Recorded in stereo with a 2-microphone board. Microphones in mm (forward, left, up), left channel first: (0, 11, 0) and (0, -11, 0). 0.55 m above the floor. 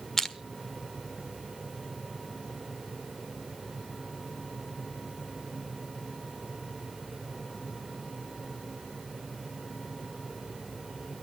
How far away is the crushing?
About 1.1 m.